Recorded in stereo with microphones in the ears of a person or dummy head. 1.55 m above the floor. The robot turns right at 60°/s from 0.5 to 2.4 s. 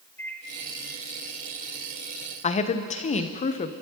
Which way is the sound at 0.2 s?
15° left (ahead or behind).